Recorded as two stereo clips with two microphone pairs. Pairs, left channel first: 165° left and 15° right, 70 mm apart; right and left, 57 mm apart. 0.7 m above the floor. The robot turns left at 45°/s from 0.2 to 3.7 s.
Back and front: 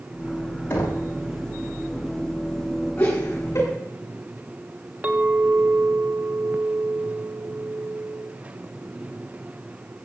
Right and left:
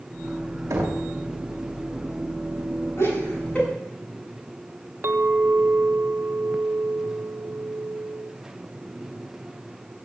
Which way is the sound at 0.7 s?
115° left.